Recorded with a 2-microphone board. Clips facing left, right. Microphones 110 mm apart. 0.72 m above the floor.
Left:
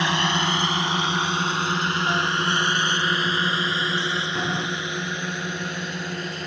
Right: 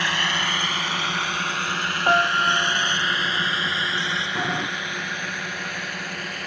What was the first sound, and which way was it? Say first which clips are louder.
A drone: left 3 dB; 20° left (ahead or behind).